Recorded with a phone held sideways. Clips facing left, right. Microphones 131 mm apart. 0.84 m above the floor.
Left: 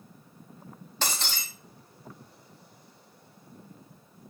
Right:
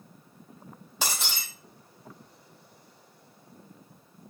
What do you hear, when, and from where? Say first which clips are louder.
1.0 s breaking glass: even; 10° right (ahead or behind), 4.5 m